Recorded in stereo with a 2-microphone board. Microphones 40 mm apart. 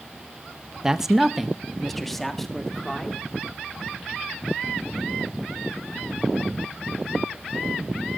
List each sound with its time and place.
0.8 s a man speaking: 15° right (ahead or behind), 0.7 m; by 3.2 s 10° left (ahead or behind), 2.5 m